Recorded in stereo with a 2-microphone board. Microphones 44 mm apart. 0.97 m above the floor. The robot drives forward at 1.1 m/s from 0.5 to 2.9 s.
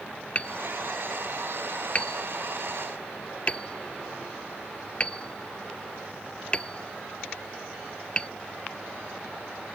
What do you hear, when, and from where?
0.3 s hammering: 30° left (ahead or behind); by 8.3 s 25° left (ahead or behind)